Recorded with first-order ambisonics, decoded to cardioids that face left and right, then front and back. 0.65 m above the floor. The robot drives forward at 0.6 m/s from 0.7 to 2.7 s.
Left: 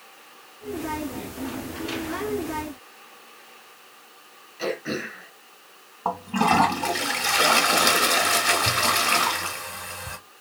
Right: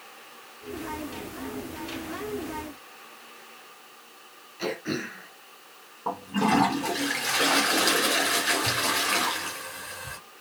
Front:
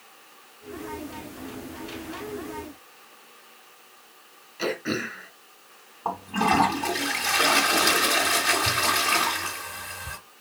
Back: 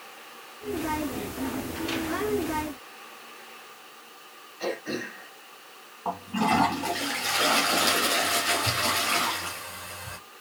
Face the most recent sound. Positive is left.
turn(degrees=75)